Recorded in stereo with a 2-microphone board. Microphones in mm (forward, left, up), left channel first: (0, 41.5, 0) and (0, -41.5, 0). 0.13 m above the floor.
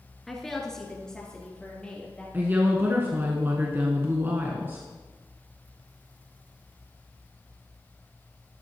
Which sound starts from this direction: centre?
A woman speaking, at 0.3 s.